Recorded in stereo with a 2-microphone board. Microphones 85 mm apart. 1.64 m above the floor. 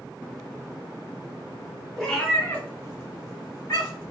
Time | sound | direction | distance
2.0 | a cat meowing | 5° left (ahead or behind) | 0.9 m